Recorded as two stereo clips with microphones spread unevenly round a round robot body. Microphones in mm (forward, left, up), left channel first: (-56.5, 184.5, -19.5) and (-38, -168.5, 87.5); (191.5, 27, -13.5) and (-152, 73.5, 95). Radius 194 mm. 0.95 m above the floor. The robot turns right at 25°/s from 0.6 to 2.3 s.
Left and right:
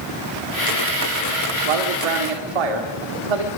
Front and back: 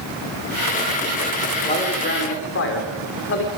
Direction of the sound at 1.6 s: 80° right.